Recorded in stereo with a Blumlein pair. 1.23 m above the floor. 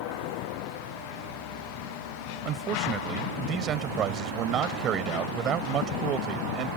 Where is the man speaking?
30° right.